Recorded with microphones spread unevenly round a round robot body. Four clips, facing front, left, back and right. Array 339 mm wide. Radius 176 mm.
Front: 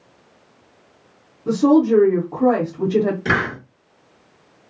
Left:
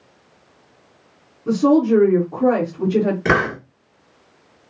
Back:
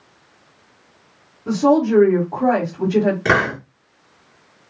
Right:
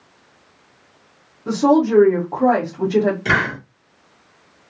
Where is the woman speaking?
10° right, 1.3 m.